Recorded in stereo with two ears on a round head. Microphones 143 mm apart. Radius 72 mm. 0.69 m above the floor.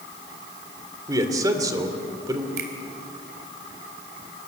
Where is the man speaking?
20° right (ahead or behind), 2 m.